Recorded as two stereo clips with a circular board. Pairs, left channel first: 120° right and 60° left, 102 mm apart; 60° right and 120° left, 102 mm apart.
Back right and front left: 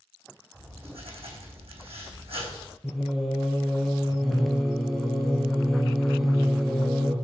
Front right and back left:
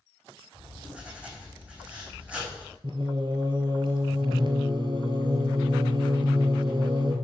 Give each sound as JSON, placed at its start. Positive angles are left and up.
{"t": 0.5, "sound": "writing", "azimuth_deg": 45, "distance_m": 3.0}
{"t": 2.8, "sound": "singing", "azimuth_deg": 150, "distance_m": 0.9}